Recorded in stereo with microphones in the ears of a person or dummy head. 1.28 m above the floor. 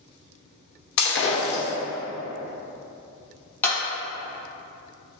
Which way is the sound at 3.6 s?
10° left (ahead or behind).